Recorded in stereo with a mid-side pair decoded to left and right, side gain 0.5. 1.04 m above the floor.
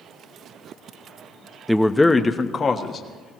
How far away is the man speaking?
About 0.9 m.